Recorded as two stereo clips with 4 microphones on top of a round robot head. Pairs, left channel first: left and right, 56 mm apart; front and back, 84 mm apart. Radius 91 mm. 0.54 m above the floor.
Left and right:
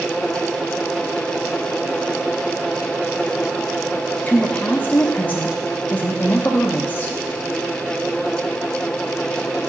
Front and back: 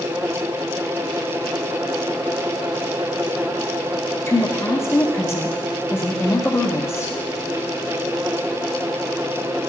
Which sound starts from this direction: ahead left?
A woman speaking, at 4.3 s.